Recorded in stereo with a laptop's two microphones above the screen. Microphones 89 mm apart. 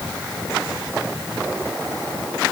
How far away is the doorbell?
No doorbell in this recording.